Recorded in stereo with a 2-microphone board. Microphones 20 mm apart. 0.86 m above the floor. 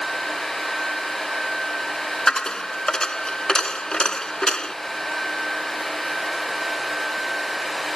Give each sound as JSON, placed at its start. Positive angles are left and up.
{"t": 2.3, "sound": "a dropped coin", "side_deg": 40}